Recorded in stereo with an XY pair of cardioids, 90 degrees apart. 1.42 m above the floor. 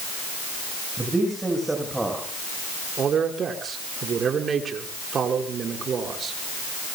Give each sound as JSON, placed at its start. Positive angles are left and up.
{"t": 1.0, "sound": "a man speaking", "azimuth_deg": -20, "distance_m": 6.5}
{"t": 3.0, "sound": "a man speaking", "azimuth_deg": -55, "distance_m": 5.0}